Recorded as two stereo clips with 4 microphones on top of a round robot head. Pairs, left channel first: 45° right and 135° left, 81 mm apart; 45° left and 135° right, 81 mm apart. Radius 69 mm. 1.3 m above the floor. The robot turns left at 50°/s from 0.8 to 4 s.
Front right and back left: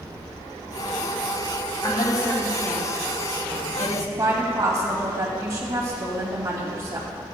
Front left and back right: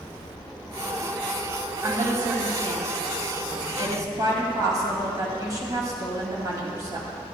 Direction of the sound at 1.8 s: 70° right.